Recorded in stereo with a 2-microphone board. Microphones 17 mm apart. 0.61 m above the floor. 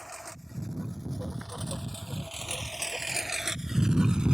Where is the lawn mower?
Centre (ahead or behind); by 4.3 s 65° right (ahead or behind).